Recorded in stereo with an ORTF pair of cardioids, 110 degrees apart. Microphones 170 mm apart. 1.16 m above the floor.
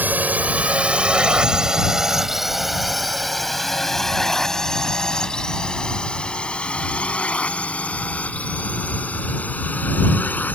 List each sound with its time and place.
0.0 s a drone: 10° right; by 10.6 s 10° left